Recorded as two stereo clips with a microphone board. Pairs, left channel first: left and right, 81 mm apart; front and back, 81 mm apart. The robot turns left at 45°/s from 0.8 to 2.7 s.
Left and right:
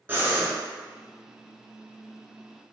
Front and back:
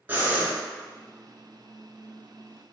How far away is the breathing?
About 1.0 m.